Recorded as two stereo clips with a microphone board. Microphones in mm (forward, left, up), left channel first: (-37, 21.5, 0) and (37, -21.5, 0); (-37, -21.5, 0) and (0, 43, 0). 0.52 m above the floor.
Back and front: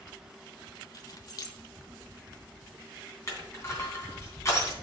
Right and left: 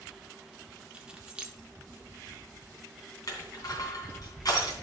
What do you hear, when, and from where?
0.9 s keys jangling: 130° left, 0.8 m
3.3 s crushing: 155° right, 3 m